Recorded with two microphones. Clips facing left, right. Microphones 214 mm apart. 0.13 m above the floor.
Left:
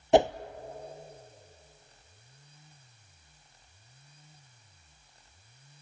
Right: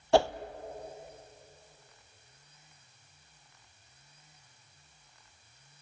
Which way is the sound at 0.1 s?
20° left (ahead or behind).